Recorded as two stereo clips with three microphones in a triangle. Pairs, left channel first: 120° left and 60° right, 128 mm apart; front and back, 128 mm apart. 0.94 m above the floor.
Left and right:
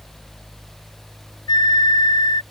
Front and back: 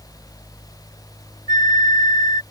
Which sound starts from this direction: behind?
A flute, at 1.5 s.